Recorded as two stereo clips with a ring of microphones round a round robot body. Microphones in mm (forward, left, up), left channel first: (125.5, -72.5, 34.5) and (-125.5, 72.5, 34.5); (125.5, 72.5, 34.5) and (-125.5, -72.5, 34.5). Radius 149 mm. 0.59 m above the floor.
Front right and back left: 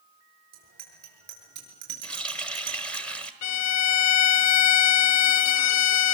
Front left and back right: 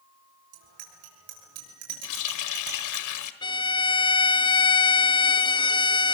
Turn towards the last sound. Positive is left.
turn(degrees=-40)